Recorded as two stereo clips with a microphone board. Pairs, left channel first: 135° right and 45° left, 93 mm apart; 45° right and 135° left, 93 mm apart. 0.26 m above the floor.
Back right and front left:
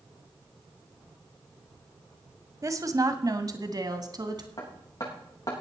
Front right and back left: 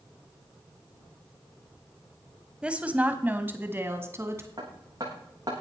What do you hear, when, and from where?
2.6 s a woman speaking: 65° left, 1.3 m; by 4.5 s 80° left, 2 m
4.6 s hammering: 175° left, 8 m